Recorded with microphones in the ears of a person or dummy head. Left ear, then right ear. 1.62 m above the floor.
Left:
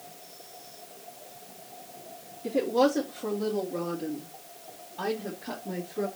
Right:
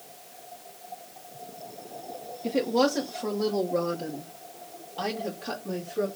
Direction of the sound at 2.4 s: 35° right (ahead or behind).